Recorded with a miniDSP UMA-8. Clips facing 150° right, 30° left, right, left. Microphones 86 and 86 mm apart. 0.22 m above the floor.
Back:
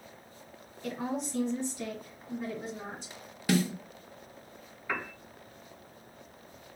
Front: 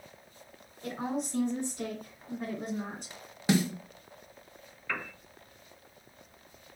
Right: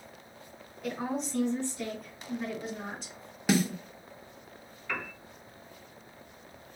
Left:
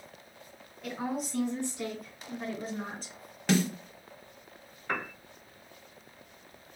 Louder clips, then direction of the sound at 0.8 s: Even, right 1 dB; straight ahead.